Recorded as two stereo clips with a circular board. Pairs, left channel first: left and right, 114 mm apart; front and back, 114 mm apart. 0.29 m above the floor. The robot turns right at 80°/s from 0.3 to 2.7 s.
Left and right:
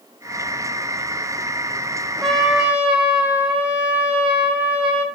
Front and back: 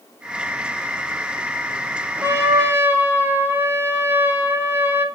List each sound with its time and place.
2.2 s a trumpet: 165° left, 1.5 m; by 5.0 s 155° right, 1.5 m